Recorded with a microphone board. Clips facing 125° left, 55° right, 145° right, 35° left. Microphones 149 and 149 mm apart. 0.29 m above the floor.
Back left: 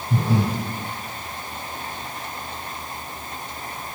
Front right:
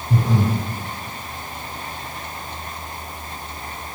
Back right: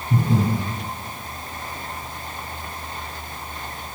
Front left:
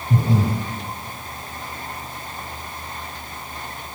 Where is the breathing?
20° left, 4.5 m.